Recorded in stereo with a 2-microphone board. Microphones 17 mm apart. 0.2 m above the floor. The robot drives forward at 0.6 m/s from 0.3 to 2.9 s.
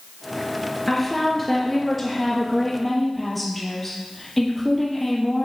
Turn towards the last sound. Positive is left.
turn(degrees=5)  # may be behind; listen again after turning